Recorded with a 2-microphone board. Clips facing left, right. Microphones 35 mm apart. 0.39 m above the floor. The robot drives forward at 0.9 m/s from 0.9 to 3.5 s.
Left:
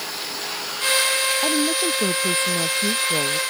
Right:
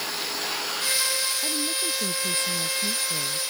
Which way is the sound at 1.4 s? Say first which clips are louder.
Left 8 dB; 45° left (ahead or behind).